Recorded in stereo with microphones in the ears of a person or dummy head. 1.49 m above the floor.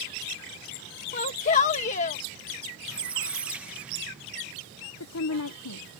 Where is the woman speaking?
75° left (ahead or behind).